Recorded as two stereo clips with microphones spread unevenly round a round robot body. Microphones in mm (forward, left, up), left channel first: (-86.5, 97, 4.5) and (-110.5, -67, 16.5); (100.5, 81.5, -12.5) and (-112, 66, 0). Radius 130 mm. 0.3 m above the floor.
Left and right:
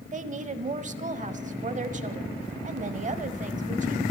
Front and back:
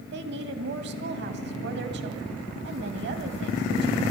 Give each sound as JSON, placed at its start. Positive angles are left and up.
{"t": 0.1, "sound": "a woman speaking", "azimuth_deg": -135, "distance_m": 1.4}